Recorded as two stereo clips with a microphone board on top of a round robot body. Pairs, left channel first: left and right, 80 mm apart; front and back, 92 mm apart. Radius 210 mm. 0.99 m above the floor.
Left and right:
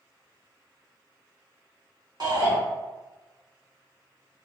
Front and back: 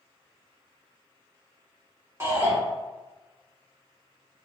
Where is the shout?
120° right, 1.8 m.